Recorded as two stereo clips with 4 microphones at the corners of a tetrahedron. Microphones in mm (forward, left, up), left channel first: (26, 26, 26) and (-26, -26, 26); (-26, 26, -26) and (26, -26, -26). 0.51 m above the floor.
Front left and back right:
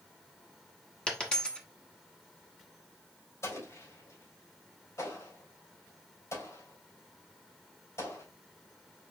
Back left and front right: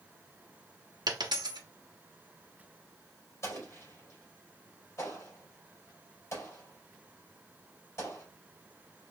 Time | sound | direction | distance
1.1 | a dropped coin | 30° right | 1.3 m
3.4 | an explosion | 90° left | 3.5 m